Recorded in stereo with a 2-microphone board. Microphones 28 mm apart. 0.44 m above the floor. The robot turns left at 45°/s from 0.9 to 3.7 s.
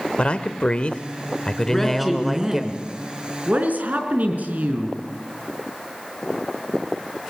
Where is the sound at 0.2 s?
60° left, 1.1 m; by 2.6 s 15° right, 1.1 m.